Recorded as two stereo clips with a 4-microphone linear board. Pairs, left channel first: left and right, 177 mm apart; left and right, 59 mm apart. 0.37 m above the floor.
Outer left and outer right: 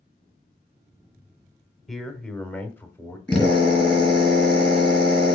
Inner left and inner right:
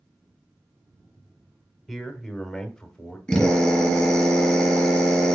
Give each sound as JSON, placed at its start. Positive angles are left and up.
{"t": 1.9, "sound": "a man speaking", "side_deg": 0, "distance_m": 1.2}
{"t": 3.3, "sound": "a drill", "side_deg": 5, "distance_m": 4.0}